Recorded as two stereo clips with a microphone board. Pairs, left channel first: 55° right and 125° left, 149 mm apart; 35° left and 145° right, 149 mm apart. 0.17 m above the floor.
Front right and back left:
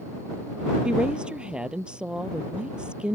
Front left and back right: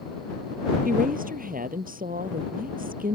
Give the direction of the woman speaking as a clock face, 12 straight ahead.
5 o'clock.